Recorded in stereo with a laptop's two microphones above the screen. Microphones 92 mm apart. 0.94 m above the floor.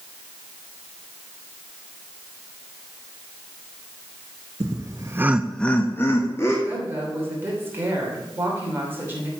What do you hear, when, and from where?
4.6 s laughter: 40° right (ahead or behind), 1.2 m; by 6.5 s 30° left (ahead or behind), 2 m
6.7 s a woman speaking: 25° right (ahead or behind), 3 m